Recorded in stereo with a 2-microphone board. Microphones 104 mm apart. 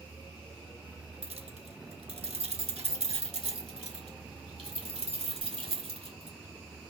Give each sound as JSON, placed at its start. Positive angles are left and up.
{"t": 1.2, "sound": "keys jangling", "side_deg": -75, "distance_m": 1.2}